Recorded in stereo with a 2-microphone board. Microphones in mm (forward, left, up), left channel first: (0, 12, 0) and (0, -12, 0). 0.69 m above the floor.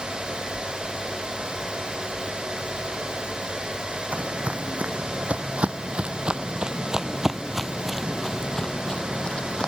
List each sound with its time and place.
4.1 s footsteps: 70° right (ahead or behind); by 9.7 s 35° left (ahead or behind)